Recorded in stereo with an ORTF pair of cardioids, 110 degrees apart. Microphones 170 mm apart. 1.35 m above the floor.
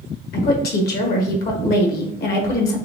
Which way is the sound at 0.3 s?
60° left.